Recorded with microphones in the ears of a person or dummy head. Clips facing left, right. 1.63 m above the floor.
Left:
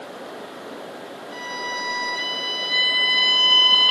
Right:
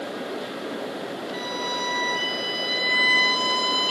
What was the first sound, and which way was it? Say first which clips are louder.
A violin: right 3 dB; 55° left (ahead or behind).